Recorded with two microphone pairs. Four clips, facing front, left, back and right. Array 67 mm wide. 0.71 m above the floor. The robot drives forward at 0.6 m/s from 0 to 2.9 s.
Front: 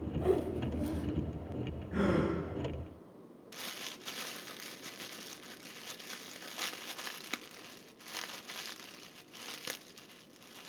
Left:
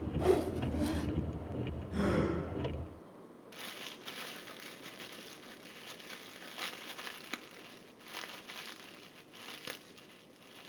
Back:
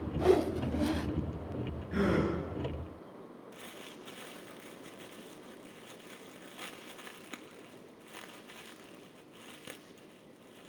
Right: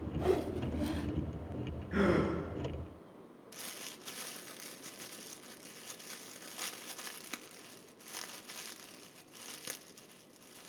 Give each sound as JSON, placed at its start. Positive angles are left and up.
{"t": 0.2, "sound": "a whoosh", "azimuth_deg": 170, "distance_m": 0.5}
{"t": 1.9, "sound": "a gasp", "azimuth_deg": -115, "distance_m": 8.5}
{"t": 3.5, "sound": "crumpling", "azimuth_deg": 25, "distance_m": 0.9}